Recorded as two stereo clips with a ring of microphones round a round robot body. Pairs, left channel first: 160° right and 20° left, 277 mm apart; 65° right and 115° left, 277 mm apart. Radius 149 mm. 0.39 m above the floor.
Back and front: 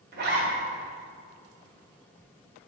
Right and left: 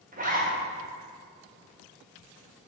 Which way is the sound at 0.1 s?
60° left.